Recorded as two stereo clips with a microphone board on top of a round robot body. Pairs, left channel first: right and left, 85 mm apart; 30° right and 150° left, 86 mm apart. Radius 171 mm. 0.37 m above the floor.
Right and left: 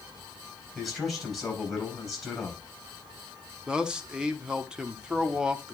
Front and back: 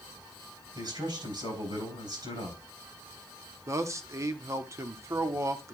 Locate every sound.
0.8 s a man speaking: 175° left, 4.5 m
3.7 s a man speaking: 165° left, 1.2 m